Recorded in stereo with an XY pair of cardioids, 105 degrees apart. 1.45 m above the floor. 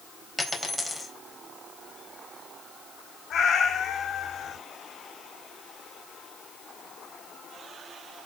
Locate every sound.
0.4 s a dropped coin: 10° left, 4 m
3.3 s a cat meowing: 55° left, 5 m